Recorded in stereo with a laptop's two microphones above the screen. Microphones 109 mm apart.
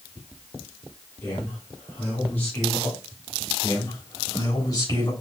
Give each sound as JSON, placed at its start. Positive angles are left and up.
{"t": 1.2, "sound": "a man speaking", "side_deg": 15, "distance_m": 3.0}
{"t": 3.6, "sound": "a man speaking", "side_deg": 35, "distance_m": 4.0}